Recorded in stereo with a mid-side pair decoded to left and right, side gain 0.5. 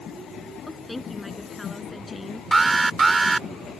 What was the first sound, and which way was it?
A woman speaking, 15° left.